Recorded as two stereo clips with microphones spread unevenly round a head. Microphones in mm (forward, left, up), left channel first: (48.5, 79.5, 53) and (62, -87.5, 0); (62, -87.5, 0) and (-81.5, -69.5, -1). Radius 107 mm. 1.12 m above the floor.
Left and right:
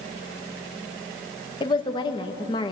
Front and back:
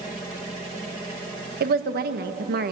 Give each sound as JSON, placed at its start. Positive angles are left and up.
{"t": 1.6, "sound": "a woman speaking", "azimuth_deg": 170, "distance_m": 1.2}